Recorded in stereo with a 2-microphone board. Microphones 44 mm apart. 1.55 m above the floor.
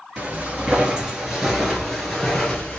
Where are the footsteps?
30° right (ahead or behind), 1.7 m; by 2.8 s 15° left (ahead or behind), 1.8 m.